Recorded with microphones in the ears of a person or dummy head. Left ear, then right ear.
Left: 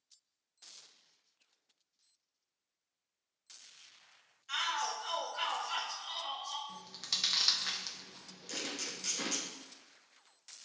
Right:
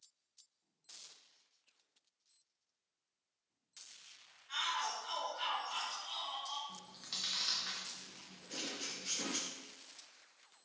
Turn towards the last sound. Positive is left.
turn(degrees=70)  # may be behind; listen again after turning